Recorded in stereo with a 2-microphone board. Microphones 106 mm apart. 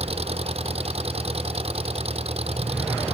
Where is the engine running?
70° right (ahead or behind).